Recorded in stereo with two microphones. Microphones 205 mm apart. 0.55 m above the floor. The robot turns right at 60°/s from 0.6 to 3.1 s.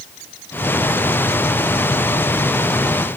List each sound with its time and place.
Only background noise.